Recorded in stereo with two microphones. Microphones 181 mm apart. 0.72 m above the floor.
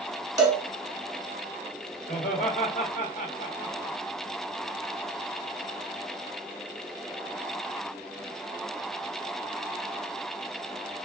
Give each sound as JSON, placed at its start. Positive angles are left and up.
{"t": 0.4, "sound": "a cowbell", "side_deg": -20, "distance_m": 1.4}
{"t": 2.1, "sound": "laughter", "side_deg": 40, "distance_m": 1.7}